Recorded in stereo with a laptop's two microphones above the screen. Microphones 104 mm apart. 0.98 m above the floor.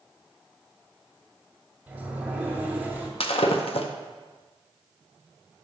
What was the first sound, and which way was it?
A sliding door, 15° right (ahead or behind).